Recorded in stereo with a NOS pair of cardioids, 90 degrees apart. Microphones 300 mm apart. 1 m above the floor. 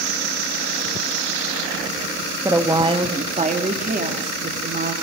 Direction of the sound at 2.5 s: 10° right.